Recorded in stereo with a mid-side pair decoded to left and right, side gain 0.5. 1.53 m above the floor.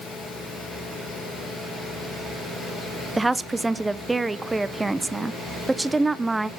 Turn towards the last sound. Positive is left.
turn(degrees=-15)